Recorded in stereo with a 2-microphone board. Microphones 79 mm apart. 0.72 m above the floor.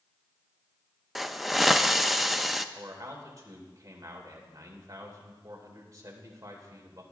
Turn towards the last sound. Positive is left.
turn(degrees=-40)  # may be behind; listen again after turning